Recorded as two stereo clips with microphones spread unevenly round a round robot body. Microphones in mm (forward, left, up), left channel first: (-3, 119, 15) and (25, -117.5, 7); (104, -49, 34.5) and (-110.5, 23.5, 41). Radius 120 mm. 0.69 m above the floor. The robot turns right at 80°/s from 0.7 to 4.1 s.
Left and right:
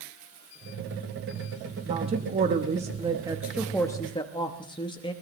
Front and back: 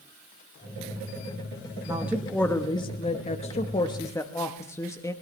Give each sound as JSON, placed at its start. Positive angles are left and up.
{"t": 1.9, "sound": "a woman speaking", "azimuth_deg": -135, "distance_m": 1.0}